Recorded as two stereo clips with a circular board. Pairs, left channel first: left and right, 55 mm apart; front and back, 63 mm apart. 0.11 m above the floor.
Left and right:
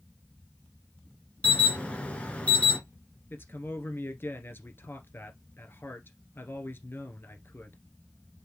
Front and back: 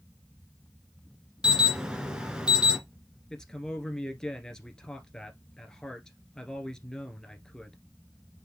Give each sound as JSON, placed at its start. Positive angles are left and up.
{"t": 1.4, "sound": "an alarm", "azimuth_deg": 120, "distance_m": 2.0}
{"t": 3.3, "sound": "a man speaking", "azimuth_deg": 75, "distance_m": 1.7}